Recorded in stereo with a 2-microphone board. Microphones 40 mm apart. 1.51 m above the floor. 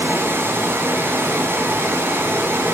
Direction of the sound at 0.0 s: 75° right (ahead or behind).